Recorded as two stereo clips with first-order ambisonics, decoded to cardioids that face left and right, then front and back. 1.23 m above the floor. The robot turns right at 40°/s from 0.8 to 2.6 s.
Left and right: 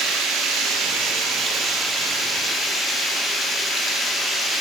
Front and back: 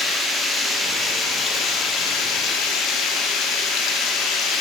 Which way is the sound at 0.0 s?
75° right.